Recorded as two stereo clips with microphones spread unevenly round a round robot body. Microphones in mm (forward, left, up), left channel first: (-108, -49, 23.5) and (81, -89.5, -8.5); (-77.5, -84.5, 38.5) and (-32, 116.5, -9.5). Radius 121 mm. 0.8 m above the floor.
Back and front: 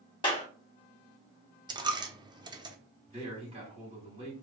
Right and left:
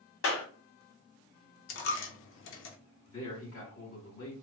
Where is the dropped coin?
85° right, 0.7 m.